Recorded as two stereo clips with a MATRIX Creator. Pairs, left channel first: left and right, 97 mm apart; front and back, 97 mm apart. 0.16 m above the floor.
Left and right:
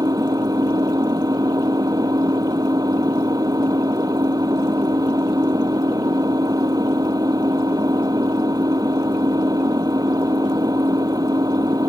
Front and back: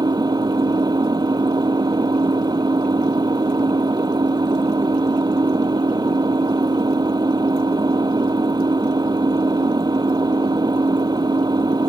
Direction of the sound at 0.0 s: 135° right.